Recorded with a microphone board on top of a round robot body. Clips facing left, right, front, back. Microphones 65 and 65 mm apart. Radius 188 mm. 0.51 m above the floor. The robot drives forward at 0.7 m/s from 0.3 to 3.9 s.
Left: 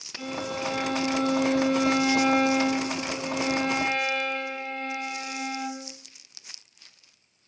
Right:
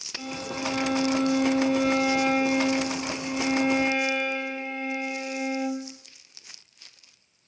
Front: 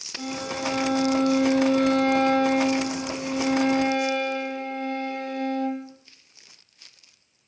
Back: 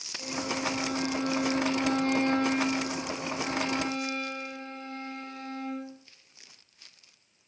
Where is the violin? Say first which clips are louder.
Left 1 dB, front 3 dB; 5° right, 8 m; by 5.9 s 10° right, 5.5 m.